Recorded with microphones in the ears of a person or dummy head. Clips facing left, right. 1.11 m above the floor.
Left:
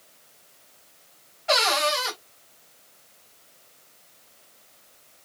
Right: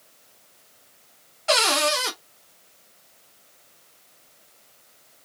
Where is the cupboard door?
50° right (ahead or behind), 0.8 m.